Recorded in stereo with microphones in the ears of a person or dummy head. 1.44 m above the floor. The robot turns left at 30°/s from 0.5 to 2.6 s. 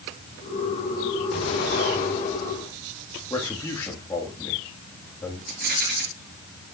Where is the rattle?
55° right (ahead or behind), 4 m.